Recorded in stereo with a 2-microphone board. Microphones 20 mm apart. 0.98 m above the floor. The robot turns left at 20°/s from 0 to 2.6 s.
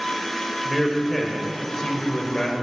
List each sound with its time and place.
0.7 s a man speaking: 175° left, 4 m; by 2.5 s 140° left, 4 m